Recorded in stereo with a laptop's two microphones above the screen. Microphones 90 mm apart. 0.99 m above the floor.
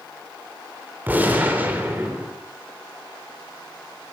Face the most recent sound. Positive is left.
turn(degrees=-20)  # may be behind; listen again after turning